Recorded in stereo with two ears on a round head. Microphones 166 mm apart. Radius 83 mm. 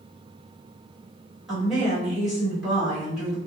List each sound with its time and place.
1.5 s a woman speaking: centre (ahead or behind), 1.5 m